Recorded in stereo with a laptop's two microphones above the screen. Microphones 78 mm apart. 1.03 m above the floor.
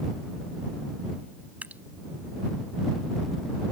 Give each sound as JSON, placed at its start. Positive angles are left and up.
{"t": 1.6, "sound": "dripping", "side_deg": -20}